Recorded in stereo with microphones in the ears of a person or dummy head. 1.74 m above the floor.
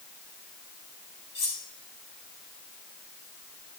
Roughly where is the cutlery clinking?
Left.